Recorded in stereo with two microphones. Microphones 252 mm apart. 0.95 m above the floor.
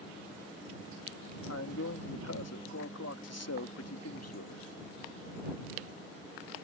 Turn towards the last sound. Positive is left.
turn(degrees=80)